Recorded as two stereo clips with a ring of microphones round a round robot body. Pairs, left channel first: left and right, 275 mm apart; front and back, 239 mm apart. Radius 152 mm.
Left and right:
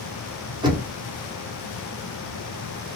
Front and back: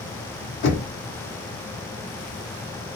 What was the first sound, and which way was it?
Knocking, 20° right.